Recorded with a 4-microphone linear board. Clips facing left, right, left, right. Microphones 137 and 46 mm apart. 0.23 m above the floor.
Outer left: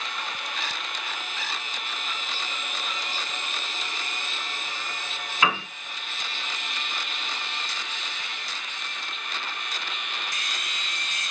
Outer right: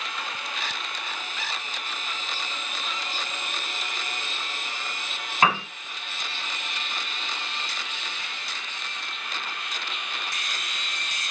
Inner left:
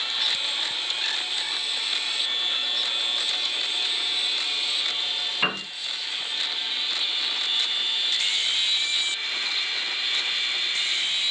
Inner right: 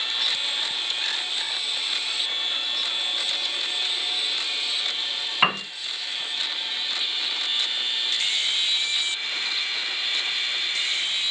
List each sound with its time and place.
5.4 s a piano: 45° right (ahead or behind), 1.1 m